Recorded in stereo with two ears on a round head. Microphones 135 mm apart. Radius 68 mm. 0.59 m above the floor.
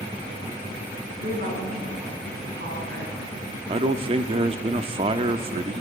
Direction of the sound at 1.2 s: 60° right (ahead or behind).